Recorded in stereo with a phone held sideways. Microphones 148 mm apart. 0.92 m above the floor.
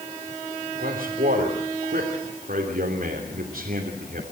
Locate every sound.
0.8 s a man speaking: 75° right (ahead or behind), 3 m